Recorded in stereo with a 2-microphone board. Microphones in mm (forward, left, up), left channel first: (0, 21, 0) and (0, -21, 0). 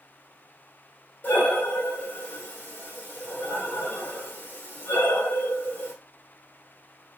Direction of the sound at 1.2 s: 45° left (ahead or behind).